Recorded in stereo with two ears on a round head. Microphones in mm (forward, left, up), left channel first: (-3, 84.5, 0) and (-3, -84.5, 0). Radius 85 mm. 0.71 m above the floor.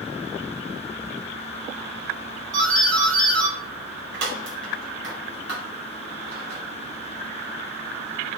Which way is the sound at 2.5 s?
65° right (ahead or behind).